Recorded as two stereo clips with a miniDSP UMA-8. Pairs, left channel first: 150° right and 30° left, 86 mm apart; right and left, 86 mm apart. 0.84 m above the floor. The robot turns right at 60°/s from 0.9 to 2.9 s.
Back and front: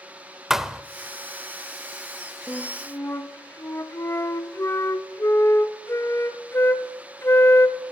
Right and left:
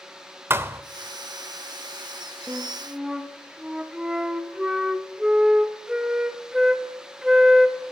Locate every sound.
0.5 s a thud: 110° left, 0.6 m
2.5 s a flute: 140° left, 0.8 m; by 7.8 s 170° left, 0.8 m